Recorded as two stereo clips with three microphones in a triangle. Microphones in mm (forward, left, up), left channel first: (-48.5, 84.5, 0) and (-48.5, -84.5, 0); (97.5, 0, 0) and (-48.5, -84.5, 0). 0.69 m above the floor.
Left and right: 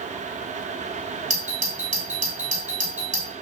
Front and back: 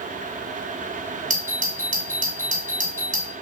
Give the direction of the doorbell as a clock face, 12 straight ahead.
4 o'clock.